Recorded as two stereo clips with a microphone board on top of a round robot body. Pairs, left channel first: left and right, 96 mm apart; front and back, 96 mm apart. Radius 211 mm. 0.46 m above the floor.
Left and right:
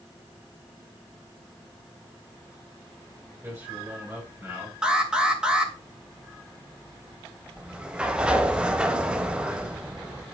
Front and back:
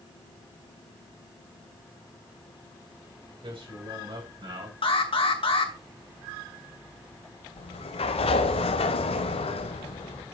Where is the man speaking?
155° right, 5.5 m.